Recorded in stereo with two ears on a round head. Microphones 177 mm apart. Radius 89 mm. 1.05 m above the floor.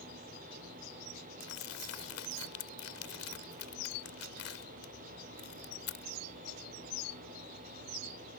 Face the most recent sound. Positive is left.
turn(degrees=85)